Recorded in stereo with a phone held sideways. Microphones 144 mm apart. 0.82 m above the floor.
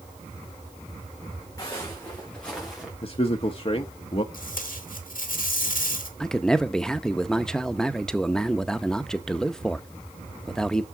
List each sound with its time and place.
1.6 s footsteps: 25° left (ahead or behind), 4 m; by 2.9 s 5° right (ahead or behind), 4.5 m
3.0 s a man speaking: 40° left (ahead or behind), 0.8 m
4.3 s tape being pulled: 75° left (ahead or behind), 2 m
6.2 s a man speaking: 5° left (ahead or behind), 0.7 m